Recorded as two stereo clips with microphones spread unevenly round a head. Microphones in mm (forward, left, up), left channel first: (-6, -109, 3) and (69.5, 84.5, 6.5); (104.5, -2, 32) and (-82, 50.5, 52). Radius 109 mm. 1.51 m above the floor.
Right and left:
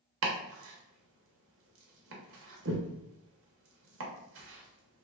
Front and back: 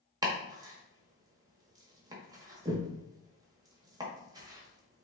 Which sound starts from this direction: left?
Chopping, at 0.2 s.